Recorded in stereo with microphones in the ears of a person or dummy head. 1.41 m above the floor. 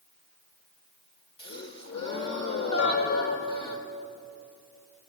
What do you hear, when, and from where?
1.4 s a gasp: 30° left (ahead or behind), 1.4 m
2.8 s a piano: 70° left (ahead or behind), 7.5 m